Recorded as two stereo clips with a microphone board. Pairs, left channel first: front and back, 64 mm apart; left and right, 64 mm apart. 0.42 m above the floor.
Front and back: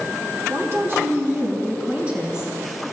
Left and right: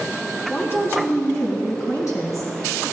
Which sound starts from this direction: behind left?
A woman speaking, at 0.5 s.